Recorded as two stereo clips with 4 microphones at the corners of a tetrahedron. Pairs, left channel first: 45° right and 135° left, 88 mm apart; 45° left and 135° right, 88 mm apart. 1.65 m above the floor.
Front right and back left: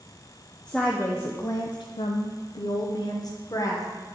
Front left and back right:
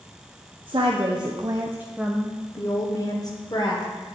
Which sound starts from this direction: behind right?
A woman speaking, at 0.7 s.